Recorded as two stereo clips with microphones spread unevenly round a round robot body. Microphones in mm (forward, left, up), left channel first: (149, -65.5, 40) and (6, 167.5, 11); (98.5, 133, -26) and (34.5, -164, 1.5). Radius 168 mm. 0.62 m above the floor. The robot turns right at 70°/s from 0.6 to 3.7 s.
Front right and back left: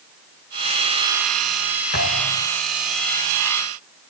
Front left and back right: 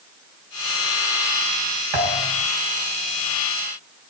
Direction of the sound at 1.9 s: 120° right.